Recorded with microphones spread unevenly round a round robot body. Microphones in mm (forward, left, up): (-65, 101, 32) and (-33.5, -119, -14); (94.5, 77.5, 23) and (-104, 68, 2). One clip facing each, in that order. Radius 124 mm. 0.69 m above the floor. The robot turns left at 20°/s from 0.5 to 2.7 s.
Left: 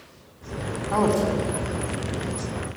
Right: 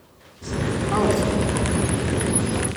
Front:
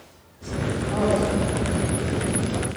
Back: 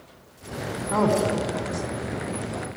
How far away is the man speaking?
About 4.5 m.